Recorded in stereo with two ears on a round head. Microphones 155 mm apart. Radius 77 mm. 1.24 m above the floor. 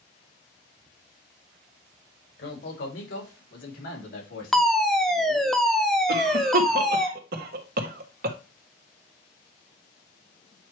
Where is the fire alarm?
Centre (ahead or behind), 0.8 m.